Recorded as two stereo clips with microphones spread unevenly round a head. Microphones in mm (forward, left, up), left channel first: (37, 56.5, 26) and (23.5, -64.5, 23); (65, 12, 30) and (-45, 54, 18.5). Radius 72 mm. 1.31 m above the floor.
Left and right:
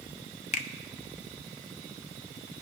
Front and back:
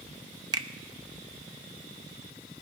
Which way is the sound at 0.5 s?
110° left.